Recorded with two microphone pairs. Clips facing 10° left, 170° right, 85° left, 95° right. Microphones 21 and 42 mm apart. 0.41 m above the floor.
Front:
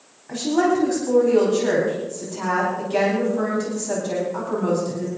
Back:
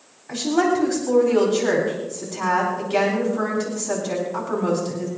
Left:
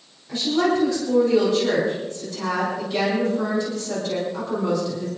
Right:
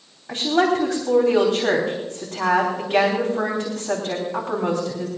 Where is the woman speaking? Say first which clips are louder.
Even, right 2 dB; 90° right, 3 m.